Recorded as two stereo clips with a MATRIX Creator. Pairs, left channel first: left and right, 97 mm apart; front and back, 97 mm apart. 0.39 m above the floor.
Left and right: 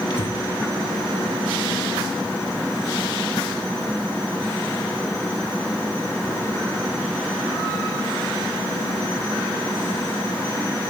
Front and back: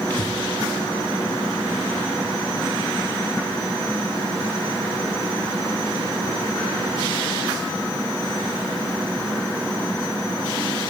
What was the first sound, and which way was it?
Breathing, 70° left.